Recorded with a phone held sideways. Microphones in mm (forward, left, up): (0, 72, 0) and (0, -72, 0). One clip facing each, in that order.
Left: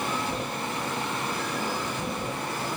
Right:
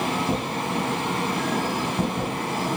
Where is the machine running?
70° right (ahead or behind), 3 m.